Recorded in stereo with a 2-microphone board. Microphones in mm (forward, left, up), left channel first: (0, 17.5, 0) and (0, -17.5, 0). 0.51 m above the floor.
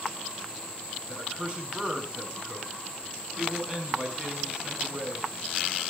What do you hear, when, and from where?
1.1 s a man speaking: 25° right (ahead or behind), 6 m